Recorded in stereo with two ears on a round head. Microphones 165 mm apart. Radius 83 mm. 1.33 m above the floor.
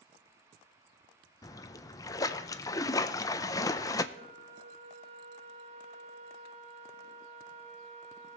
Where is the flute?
40° right (ahead or behind), 1.0 m.